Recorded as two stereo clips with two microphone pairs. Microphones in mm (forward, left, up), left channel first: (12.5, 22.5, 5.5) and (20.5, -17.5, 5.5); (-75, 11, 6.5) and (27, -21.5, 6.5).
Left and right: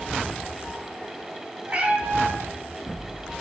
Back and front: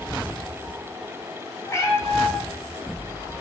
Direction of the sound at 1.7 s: 135° right.